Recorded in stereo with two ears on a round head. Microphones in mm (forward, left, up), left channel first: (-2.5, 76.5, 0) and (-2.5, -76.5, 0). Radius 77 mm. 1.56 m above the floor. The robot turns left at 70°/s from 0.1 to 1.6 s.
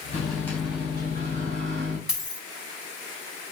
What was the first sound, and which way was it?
A microwave, 35° left.